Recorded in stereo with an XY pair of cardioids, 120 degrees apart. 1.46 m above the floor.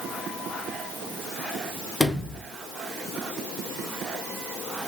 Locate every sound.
2.0 s a sliding door: 10° left, 0.8 m